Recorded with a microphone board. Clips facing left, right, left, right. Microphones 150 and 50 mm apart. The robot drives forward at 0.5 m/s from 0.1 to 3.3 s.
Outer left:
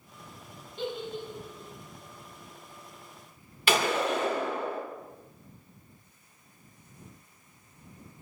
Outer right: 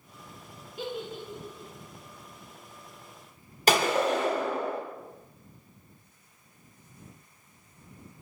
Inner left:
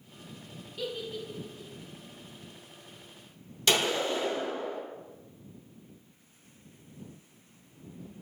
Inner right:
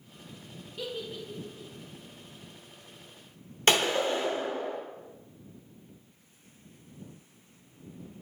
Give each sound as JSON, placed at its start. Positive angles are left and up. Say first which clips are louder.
{"t": 0.8, "sound": "a giggle", "louder": "outer left 1 dB, inner left 1 dB", "side_deg": -5, "distance_m": 0.6}
{"t": 3.7, "sound": "a gunshot", "louder": "outer right 3 dB, inner right 2 dB", "side_deg": -40, "distance_m": 0.9}